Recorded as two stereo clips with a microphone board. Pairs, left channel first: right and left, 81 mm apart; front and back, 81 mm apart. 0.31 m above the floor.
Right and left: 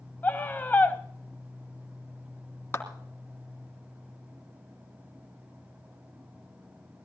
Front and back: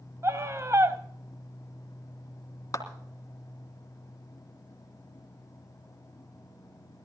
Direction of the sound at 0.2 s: 145° right.